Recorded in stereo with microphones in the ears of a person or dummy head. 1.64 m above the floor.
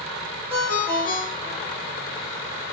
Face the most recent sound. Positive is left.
turn(degrees=40)  # may be behind; listen again after turning